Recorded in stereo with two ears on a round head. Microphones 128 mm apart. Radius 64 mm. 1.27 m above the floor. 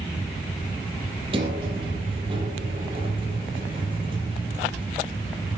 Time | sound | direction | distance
1.3 | a sliding door | 40° right (ahead or behind) | 5.5 m